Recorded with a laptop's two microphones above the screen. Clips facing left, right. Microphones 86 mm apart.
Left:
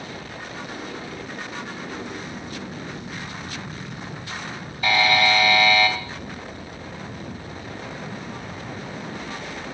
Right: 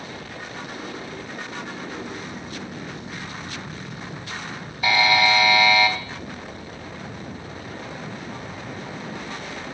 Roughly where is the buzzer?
Centre.